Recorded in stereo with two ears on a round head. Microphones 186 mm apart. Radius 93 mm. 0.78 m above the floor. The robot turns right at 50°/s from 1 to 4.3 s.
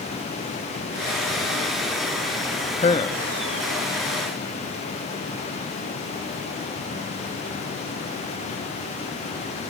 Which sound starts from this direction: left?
A man speaking, at 2.7 s.